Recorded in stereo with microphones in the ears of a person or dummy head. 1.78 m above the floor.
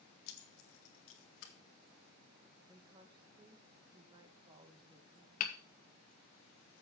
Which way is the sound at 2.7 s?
25° right (ahead or behind).